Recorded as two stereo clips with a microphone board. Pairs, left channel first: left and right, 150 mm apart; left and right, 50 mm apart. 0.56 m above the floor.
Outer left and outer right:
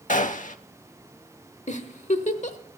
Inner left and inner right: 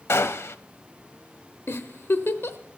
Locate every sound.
0.1 s a gunshot: 60° left (ahead or behind), 0.5 m
1.7 s a giggle: 50° left (ahead or behind), 1.0 m